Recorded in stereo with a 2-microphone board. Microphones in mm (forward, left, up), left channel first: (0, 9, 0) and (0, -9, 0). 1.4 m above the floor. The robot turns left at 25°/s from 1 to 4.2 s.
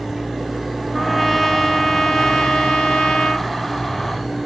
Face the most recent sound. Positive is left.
turn(degrees=80)